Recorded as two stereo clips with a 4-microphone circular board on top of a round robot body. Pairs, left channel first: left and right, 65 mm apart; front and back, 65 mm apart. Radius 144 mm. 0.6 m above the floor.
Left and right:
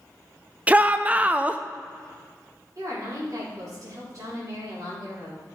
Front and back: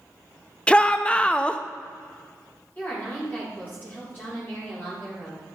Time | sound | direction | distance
0.7 | a shout | 50° right | 0.6 m
2.8 | a woman speaking | 60° right | 4 m